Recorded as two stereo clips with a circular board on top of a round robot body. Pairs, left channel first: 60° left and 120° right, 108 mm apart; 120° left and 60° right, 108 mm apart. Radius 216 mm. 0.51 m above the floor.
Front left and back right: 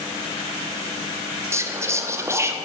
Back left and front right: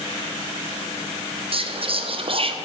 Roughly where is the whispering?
Ahead right.